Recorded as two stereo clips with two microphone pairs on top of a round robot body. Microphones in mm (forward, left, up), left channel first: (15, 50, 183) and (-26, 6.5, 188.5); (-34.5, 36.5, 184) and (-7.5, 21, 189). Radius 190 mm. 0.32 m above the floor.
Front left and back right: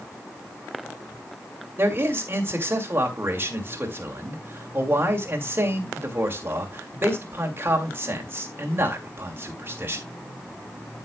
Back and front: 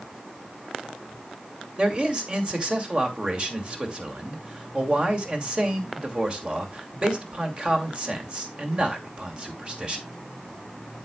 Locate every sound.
1.8 s a man speaking: 85° right, 2.5 m